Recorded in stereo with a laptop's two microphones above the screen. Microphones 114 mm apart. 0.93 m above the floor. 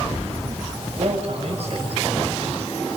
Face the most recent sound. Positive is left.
turn(degrees=-60)  # may be behind; listen again after turning